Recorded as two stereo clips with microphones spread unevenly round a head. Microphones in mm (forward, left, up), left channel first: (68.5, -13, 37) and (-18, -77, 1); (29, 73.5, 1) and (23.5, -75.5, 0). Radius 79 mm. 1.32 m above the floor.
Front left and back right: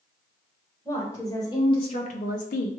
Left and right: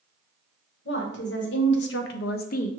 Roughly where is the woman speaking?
Behind left.